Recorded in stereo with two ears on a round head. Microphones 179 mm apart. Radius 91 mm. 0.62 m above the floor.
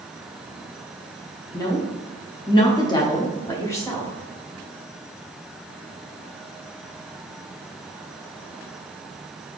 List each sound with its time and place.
1.5 s a woman speaking: 20° left (ahead or behind), 0.8 m; by 4.1 s 15° left (ahead or behind), 1.1 m